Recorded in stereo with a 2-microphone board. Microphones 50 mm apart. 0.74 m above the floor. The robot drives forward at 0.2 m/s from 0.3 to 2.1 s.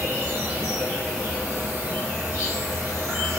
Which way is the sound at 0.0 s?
60° right (ahead or behind).